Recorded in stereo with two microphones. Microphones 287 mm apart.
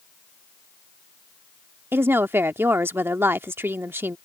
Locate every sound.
1.9 s a woman speaking: 10° right (ahead or behind)